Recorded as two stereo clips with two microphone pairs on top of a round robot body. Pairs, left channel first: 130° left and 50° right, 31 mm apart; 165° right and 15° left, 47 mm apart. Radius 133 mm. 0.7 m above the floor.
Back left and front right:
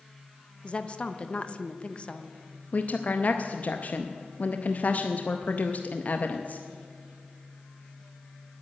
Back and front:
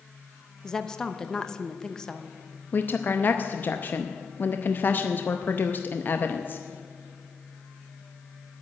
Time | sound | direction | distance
0.6 | a woman speaking | 135° left | 1.0 m
2.7 | a woman speaking | 160° left | 0.8 m